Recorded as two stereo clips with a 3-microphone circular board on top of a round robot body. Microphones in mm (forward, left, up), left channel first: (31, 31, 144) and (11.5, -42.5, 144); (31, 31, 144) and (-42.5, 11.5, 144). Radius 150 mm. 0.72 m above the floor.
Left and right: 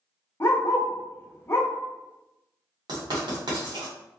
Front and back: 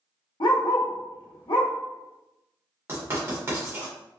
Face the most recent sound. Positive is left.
turn(degrees=-110)